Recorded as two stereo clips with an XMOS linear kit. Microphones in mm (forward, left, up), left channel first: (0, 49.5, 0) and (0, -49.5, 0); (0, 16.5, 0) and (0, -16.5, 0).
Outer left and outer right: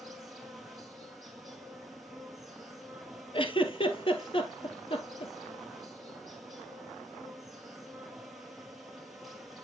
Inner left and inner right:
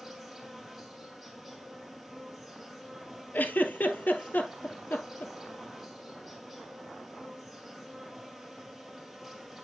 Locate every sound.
0.0 s an insect: centre (ahead or behind), 1.8 m
3.3 s a giggle: 65° left (ahead or behind), 1.0 m